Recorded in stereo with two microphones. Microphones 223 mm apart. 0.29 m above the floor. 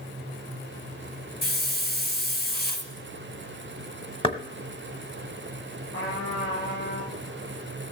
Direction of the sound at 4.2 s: 25° left (ahead or behind).